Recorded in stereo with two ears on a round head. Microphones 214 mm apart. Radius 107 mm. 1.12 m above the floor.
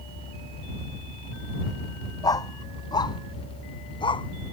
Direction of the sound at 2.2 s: 15° left (ahead or behind).